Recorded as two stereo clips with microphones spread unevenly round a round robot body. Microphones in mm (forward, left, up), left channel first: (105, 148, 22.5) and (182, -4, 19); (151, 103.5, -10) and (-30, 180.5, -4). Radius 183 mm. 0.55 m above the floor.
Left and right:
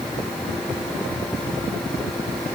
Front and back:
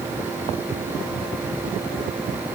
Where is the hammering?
No hammering in this recording.